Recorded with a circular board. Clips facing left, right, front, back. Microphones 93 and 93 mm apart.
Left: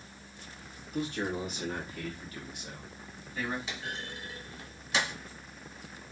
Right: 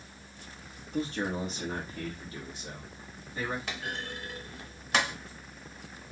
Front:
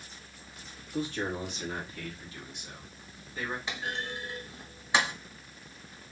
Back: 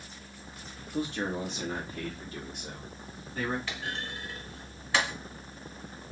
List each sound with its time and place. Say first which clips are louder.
0.9 s a man speaking: right 1 dB, back 1 dB; 115° right, 1.3 m; by 3.6 s 150° right, 2.5 m
3.7 s a clunk: right 2 dB, front 1 dB; 70° right, 1.1 m